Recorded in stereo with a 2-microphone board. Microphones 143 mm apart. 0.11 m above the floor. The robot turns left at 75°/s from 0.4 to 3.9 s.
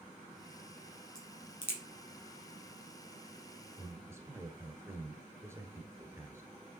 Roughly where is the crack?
Centre.